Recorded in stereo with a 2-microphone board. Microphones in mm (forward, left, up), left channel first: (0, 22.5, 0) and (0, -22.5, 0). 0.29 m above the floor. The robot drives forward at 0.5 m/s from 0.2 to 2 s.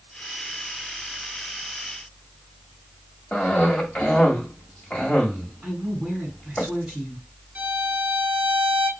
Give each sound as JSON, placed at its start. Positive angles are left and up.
{"t": 3.3, "sound": "a cough", "side_deg": 35, "distance_m": 1.7}
{"t": 5.6, "sound": "a woman speaking", "side_deg": -15, "distance_m": 3.0}
{"t": 7.5, "sound": "a violin", "side_deg": -30, "distance_m": 1.2}